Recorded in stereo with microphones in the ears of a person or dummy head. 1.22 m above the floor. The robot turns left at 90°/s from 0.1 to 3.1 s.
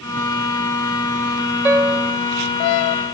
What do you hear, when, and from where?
1.6 s a piano: 15° right, 0.7 m; by 2.2 s 60° right, 0.7 m